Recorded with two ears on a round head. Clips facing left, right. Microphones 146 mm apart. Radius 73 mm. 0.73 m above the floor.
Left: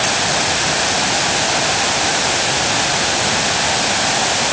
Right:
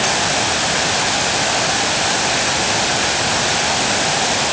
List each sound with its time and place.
Only background noise.